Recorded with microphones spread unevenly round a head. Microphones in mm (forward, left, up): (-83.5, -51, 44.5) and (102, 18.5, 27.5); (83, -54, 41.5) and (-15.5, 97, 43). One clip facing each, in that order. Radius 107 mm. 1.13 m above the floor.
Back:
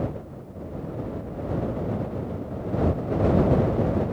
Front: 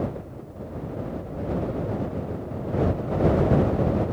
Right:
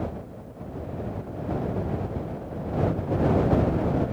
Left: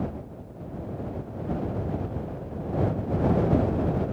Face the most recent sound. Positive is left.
No sound to turn to.